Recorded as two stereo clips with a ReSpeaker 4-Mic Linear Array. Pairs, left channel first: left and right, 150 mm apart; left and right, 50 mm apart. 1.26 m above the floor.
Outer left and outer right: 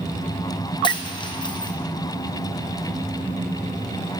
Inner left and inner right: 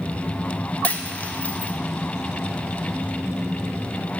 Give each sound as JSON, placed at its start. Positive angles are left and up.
{"t": 0.8, "sound": "a dropped coin", "side_deg": 30, "distance_m": 0.5}